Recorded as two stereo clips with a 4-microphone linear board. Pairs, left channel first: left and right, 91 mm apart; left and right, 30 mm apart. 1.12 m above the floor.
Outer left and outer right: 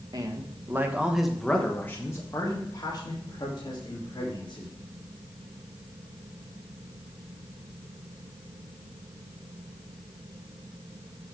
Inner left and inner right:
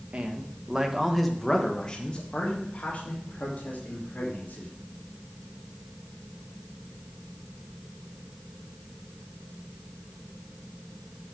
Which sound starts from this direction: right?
A man speaking, at 0.1 s.